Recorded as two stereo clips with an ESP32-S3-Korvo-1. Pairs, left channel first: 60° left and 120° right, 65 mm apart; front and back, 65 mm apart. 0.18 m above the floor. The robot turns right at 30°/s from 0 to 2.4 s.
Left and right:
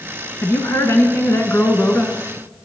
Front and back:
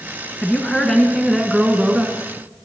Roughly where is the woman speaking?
Ahead left.